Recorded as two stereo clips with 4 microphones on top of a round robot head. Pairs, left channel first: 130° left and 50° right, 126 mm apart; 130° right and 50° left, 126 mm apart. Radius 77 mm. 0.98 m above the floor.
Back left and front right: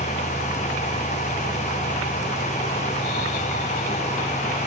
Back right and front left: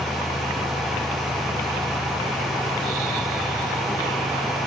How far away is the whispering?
No whispering in this recording.